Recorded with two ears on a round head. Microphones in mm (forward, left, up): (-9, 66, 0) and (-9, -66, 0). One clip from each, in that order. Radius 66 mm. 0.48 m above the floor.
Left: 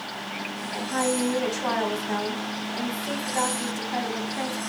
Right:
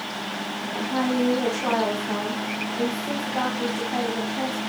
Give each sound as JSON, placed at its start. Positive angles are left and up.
{"t": 0.7, "sound": "a woman speaking", "side_deg": 40, "distance_m": 3.0}